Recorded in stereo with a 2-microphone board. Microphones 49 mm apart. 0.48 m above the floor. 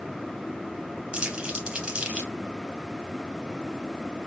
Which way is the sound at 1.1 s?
20° right (ahead or behind).